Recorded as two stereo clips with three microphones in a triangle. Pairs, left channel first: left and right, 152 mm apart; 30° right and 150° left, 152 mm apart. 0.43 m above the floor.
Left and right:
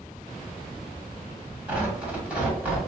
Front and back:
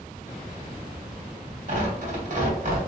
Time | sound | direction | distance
1.7 | tearing paper | 170° right | 1.0 m